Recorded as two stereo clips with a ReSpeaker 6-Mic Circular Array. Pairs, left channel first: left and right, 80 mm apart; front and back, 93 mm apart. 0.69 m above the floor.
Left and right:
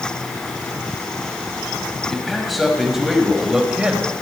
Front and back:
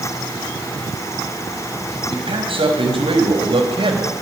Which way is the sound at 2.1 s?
Straight behind.